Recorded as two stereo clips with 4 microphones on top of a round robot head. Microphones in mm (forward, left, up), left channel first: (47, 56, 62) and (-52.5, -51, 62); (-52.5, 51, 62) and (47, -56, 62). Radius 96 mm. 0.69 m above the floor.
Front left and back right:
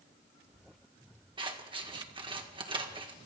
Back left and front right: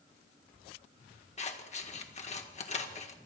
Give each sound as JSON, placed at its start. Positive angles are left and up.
{"t": 1.4, "sound": "scissors", "azimuth_deg": 170, "distance_m": 1.6}